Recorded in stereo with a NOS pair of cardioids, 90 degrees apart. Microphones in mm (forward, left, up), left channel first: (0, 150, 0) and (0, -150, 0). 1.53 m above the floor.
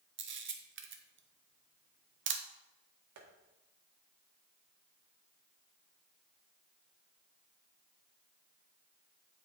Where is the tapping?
65° right, 1.8 m.